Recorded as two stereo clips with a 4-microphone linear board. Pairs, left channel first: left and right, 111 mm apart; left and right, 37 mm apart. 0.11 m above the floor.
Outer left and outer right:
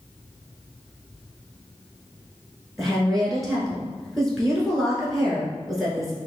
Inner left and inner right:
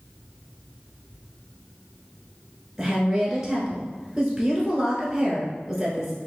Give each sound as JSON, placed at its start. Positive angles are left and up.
{"t": 2.8, "sound": "a woman speaking", "side_deg": 0, "distance_m": 1.1}